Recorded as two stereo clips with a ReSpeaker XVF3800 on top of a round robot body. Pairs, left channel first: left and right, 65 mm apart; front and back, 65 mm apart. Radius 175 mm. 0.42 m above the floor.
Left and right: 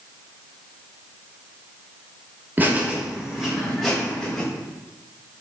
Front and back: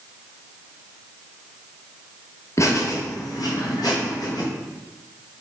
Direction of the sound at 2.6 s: 35° right.